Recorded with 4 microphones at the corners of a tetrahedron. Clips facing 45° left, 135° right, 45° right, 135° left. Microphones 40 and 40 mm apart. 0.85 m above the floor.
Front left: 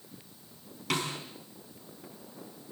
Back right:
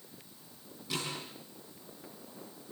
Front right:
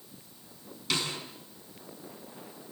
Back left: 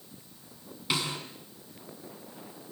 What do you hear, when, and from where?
0.9 s a snare drum: 60° left, 6 m